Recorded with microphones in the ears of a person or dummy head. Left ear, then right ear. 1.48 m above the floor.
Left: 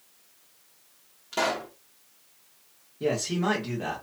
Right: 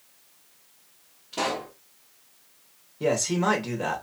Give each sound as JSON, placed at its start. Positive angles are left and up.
{"t": 1.3, "sound": "a pop", "side_deg": 40, "distance_m": 0.9}
{"t": 3.0, "sound": "a man speaking", "side_deg": -25, "distance_m": 1.3}